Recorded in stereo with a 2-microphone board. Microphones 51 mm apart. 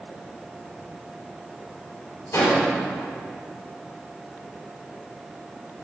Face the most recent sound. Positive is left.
turn(degrees=65)  # may be behind; listen again after turning